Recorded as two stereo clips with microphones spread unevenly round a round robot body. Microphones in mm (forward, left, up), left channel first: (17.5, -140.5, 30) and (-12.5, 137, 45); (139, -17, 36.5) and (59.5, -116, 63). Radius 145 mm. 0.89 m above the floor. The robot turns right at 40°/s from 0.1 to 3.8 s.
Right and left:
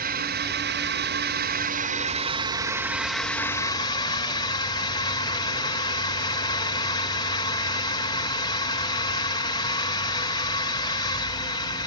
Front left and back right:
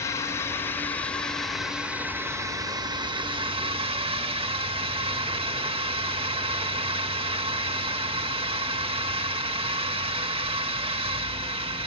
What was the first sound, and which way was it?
A drone, 65° left.